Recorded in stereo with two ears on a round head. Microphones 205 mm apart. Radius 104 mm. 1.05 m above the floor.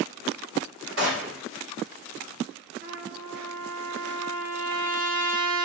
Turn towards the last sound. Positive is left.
turn(degrees=-40)  # may be behind; listen again after turning